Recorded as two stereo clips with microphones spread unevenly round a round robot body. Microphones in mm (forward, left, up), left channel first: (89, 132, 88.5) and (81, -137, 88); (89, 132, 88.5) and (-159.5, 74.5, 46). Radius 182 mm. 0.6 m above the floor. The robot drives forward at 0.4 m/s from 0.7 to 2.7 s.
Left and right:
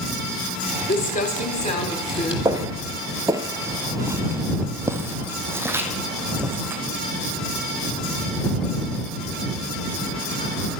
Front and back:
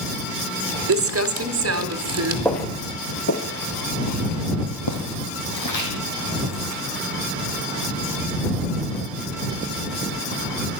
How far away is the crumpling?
About 0.9 m.